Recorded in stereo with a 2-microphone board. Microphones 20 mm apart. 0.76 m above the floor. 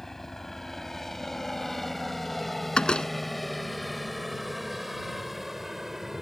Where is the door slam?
55° left (ahead or behind).